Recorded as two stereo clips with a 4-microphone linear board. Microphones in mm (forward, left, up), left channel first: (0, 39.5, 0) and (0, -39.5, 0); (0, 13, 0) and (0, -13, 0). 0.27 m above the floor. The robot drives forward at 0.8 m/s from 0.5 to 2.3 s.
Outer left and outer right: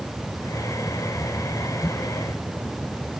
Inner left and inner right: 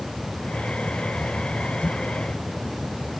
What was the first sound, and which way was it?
Only background noise.